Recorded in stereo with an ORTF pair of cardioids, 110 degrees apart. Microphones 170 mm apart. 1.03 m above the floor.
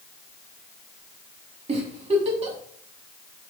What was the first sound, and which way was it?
A giggle, 40° right.